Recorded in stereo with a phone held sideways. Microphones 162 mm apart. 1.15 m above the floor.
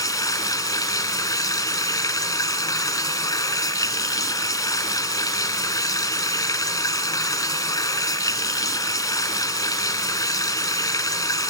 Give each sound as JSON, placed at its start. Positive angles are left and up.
{"t": 0.0, "sound": "running water", "side_deg": 25, "distance_m": 1.2}